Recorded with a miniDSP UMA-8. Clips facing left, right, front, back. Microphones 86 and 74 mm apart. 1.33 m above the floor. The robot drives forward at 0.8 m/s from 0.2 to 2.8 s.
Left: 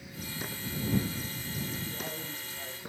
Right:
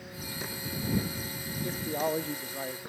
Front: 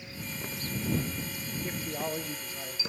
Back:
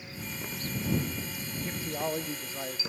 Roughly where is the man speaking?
Right.